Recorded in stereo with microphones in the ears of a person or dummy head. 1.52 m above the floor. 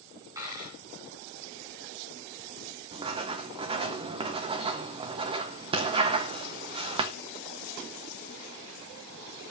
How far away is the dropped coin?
About 3 m.